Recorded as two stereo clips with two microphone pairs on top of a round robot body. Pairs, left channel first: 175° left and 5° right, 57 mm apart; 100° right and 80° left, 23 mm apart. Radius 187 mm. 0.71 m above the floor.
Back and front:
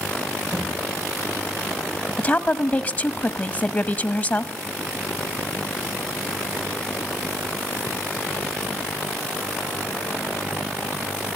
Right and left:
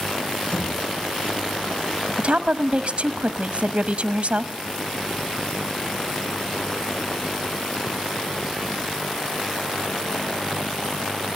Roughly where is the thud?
Right.